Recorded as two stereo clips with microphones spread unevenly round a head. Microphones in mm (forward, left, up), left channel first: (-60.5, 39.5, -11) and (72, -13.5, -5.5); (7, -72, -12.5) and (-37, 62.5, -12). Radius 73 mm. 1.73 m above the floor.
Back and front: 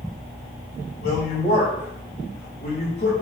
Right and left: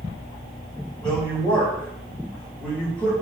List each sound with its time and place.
1.0 s a woman speaking: 155° right, 6 m